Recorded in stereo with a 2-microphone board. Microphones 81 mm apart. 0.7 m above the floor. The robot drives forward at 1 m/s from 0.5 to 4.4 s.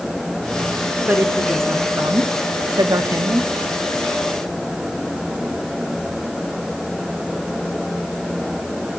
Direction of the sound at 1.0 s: 25° right (ahead or behind).